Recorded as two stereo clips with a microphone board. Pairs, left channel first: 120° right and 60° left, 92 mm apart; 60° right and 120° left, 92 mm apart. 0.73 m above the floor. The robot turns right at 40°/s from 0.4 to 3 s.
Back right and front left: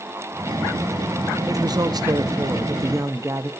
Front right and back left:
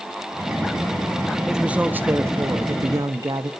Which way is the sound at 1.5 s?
40° left.